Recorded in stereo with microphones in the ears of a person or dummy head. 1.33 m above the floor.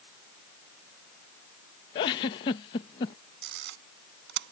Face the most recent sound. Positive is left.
turn(degrees=-60)  # may be behind; listen again after turning